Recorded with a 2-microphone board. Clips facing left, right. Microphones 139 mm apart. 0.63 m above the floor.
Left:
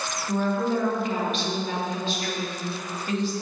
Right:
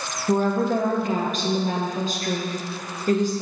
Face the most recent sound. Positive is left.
turn(degrees=-40)  # may be behind; listen again after turning